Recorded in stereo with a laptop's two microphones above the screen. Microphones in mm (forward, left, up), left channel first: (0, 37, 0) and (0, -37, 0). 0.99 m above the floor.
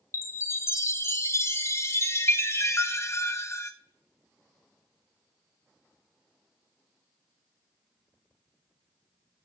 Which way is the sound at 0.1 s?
40° left (ahead or behind).